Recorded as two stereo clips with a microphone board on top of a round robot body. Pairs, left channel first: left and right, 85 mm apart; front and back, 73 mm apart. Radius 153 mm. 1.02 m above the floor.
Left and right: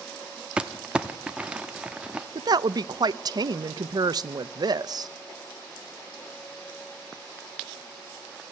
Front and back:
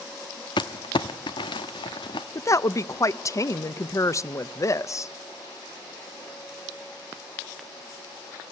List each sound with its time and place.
0.6 s crumpling: 10° right, 0.8 m
2.4 s a woman speaking: 45° right, 0.8 m